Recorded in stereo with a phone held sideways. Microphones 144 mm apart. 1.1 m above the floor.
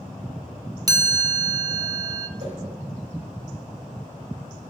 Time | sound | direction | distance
0.9 | a chime | 25° right (ahead or behind) | 0.5 m
2.4 | a whoosh | 45° right (ahead or behind) | 2.5 m